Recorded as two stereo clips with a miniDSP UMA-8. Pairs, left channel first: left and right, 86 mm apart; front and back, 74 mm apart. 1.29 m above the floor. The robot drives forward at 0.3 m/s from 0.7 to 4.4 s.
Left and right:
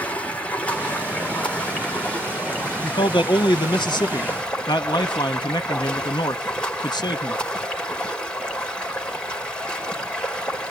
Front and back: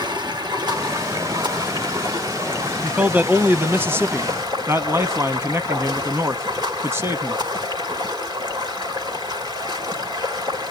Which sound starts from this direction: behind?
Running water, at 0.0 s.